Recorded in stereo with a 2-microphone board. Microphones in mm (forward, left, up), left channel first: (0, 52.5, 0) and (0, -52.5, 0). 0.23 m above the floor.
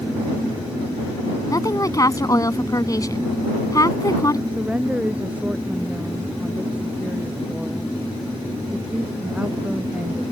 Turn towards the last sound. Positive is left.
turn(degrees=-10)  # may be behind; listen again after turning